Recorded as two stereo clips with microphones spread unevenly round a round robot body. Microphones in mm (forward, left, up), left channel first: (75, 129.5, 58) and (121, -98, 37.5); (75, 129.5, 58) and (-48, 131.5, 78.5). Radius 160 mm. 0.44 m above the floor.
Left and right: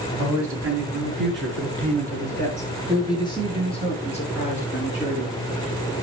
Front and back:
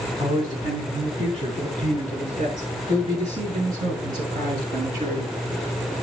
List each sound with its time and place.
0.2 s a man speaking: 110° right, 4.5 m; by 5.3 s 175° right, 6 m